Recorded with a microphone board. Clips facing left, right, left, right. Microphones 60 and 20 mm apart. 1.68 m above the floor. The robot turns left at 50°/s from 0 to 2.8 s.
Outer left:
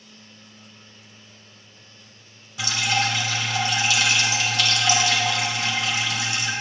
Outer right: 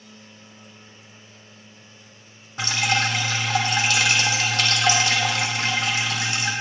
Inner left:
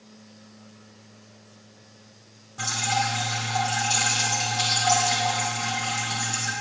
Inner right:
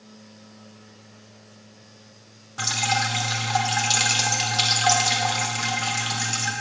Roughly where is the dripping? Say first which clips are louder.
Outer right 1 dB, inner right 2 dB; right.